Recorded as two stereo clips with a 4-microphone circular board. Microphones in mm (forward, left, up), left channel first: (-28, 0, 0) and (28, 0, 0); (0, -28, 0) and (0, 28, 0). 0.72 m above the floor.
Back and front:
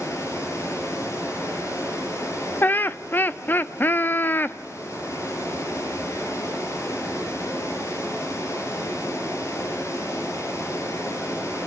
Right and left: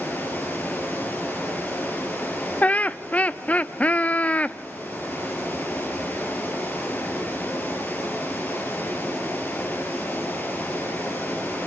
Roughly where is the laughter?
Behind right.